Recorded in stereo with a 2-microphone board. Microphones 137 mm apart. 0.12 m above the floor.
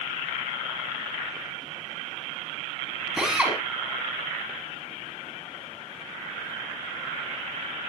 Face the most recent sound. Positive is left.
turn(degrees=-10)  # may be behind; listen again after turning